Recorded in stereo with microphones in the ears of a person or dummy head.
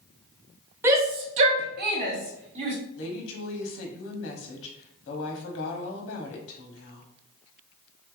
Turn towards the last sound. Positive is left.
turn(degrees=70)  # may be behind; listen again after turning